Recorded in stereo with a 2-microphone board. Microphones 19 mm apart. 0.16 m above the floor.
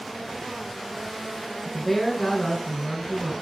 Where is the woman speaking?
5° left (ahead or behind), 1.2 m.